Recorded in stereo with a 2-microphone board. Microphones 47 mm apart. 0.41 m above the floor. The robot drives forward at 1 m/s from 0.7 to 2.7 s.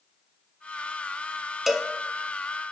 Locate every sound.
1.7 s a cowbell: 5° right (ahead or behind), 0.5 m